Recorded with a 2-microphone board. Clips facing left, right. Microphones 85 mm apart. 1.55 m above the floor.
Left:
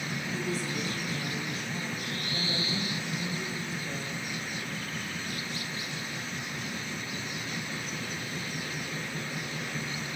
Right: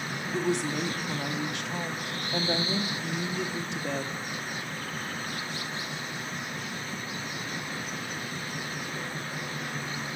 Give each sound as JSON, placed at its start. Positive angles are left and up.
{"t": 0.3, "sound": "a woman speaking", "side_deg": -70, "distance_m": 1.3}